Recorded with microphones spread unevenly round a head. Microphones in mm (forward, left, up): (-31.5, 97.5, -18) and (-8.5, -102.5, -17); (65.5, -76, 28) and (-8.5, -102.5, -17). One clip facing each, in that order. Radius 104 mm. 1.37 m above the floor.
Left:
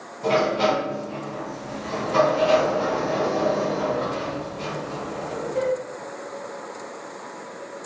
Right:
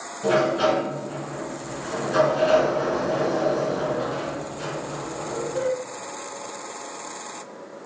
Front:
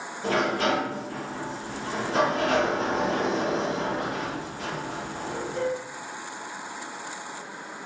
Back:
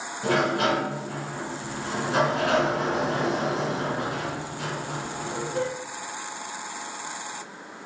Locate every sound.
0.2 s a sliding door: 155° right, 1.7 m